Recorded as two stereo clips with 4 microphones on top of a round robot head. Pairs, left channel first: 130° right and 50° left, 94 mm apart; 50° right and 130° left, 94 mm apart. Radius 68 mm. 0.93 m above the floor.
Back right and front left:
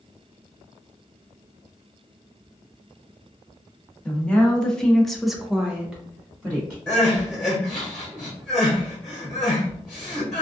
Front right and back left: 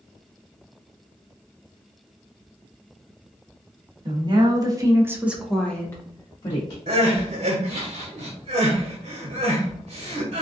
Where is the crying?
145° left, 1.3 m.